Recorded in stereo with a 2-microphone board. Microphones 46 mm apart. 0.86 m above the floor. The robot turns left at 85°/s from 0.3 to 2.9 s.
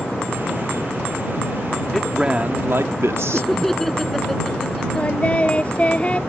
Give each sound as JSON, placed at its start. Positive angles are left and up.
{"t": 1.9, "sound": "a man speaking", "azimuth_deg": 5}
{"t": 3.3, "sound": "laughter", "side_deg": 5}
{"t": 5.0, "sound": "singing", "side_deg": 30}